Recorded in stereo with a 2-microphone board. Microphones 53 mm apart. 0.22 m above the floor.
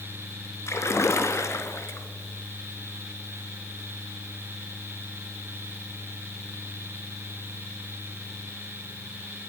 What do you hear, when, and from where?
0.7 s a splash: 65° left (ahead or behind), 1.1 m